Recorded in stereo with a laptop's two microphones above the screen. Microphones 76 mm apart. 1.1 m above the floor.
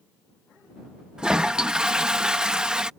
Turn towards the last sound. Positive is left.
turn(degrees=-10)  # may be behind; listen again after turning